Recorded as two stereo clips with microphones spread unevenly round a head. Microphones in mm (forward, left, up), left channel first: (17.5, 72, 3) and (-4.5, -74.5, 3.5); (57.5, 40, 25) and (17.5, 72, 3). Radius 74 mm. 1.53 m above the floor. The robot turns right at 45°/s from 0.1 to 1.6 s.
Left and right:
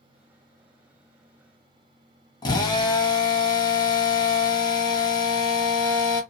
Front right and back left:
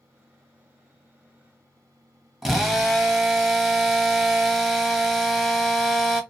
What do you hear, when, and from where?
2.4 s a drill: 30° left, 1.0 m